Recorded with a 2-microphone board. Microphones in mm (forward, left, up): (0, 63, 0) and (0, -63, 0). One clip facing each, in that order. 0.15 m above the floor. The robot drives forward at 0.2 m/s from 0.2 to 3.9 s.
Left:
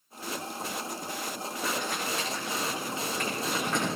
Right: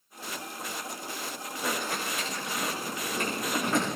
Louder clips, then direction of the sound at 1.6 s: Right 1 dB; centre (ahead or behind).